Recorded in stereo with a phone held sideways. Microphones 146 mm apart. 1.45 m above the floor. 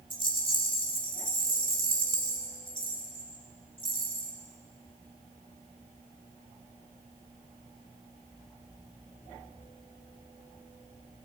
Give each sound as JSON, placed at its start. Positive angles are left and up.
{"t": 0.1, "sound": "a rattle", "side_deg": 35, "distance_m": 3.5}